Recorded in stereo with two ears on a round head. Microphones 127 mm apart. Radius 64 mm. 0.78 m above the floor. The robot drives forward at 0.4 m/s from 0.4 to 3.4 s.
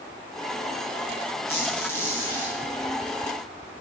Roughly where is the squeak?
Centre.